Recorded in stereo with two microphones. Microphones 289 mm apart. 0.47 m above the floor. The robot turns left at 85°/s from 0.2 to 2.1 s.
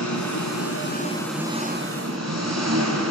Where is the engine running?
95° left, 4 m; by 3.1 s 65° right, 4 m.